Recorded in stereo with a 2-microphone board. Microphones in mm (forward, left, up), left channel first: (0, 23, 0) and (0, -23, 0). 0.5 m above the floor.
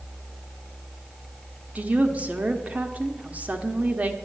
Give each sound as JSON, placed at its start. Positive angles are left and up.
{"t": 1.8, "sound": "a woman speaking", "side_deg": -35, "distance_m": 1.0}